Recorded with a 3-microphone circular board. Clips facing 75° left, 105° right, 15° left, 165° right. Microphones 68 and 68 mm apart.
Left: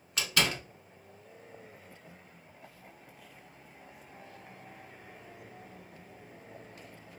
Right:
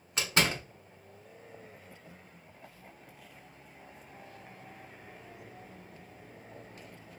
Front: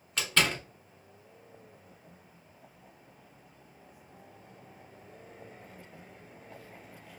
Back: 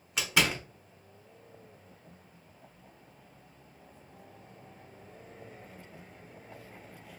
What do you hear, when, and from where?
0.2 s a door slam: 100° right, 0.9 m